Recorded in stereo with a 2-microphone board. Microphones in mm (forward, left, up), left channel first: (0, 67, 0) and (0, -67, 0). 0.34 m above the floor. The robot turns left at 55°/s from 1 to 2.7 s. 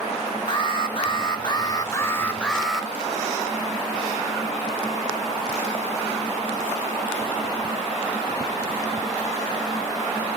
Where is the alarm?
90° left, 1.2 m; by 2.9 s 5° right, 1.2 m.